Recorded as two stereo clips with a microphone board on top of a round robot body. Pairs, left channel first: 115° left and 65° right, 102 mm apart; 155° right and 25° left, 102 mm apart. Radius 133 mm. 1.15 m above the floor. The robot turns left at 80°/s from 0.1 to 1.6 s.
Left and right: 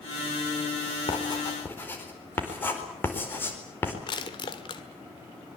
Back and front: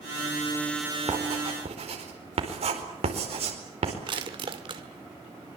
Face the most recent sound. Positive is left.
turn(degrees=65)